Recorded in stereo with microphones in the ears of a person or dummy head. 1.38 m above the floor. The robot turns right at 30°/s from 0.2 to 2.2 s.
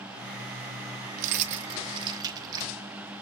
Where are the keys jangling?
45° right (ahead or behind), 0.6 m; by 2.7 s 25° right (ahead or behind), 0.6 m.